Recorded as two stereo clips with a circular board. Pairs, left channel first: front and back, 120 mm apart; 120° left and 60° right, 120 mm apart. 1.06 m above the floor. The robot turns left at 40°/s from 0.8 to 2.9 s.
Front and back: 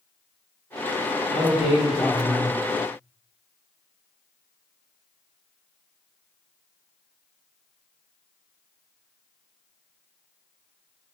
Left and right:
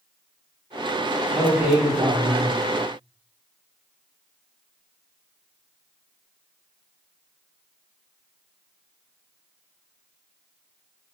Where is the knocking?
I don't hear knocking.